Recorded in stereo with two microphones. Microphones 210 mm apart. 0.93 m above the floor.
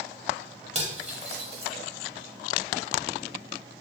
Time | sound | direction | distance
0.8 | cutlery clinking | 30° right (ahead or behind) | 0.9 m